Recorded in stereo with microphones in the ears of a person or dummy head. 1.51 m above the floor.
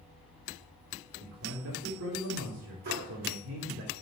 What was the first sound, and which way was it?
A man speaking, 70° right (ahead or behind).